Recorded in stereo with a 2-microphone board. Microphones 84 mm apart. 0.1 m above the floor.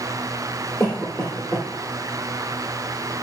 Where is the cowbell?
I don't hear a cowbell.